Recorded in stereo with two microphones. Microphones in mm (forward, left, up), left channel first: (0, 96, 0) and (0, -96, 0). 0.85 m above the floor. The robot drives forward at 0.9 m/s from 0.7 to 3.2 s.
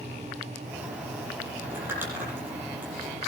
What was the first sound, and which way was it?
Crumpling, 10° right (ahead or behind).